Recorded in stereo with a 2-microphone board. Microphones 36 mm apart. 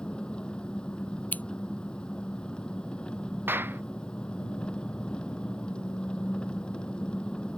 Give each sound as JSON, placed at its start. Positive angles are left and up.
{"t": 0.0, "sound": "an engine running", "side_deg": 30}
{"t": 1.3, "sound": "scissors", "side_deg": 60}
{"t": 3.5, "sound": "a clap", "side_deg": -85}